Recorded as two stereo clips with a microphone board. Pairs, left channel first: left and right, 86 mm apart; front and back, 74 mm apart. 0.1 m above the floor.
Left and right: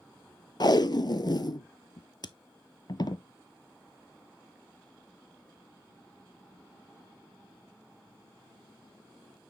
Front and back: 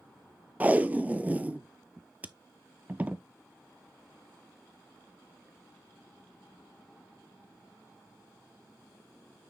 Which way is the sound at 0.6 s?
115° left.